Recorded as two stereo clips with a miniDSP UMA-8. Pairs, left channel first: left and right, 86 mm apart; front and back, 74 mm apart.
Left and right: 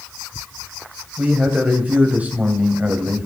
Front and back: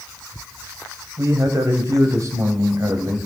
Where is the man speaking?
160° right, 2 m.